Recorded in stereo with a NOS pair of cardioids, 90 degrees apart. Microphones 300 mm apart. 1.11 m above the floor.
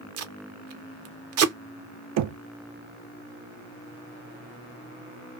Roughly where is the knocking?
Right.